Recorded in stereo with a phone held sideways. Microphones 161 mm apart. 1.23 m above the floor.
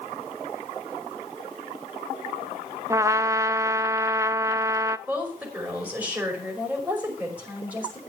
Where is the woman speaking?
10° right (ahead or behind), 5.5 m.